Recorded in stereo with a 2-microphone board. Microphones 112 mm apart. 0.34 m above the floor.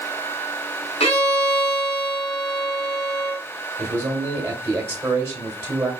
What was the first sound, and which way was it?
A violin, 65° left (ahead or behind).